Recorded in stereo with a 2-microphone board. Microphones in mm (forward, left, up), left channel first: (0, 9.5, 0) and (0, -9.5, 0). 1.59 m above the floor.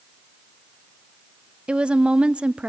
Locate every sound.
1.7 s a woman speaking: 85° right, 0.6 m